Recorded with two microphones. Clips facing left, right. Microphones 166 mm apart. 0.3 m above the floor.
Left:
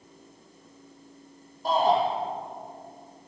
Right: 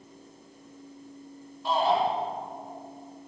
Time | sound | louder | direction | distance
1.6 | a shout | left 2 dB | 40° left (ahead or behind) | 9 m